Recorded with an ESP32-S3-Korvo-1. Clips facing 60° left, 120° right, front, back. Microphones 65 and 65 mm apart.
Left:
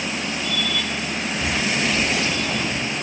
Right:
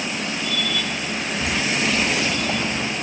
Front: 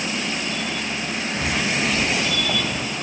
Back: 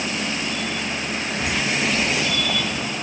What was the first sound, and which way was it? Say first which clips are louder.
Footsteps: even, even; 30° right.